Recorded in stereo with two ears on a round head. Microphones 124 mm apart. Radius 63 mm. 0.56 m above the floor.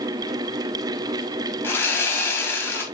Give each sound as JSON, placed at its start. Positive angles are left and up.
{"t": 1.6, "sound": "sawing", "side_deg": 20, "distance_m": 3.5}